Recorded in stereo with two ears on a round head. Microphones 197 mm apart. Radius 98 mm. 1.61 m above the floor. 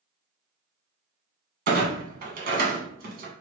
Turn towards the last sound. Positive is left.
turn(degrees=-45)  # may be behind; listen again after turning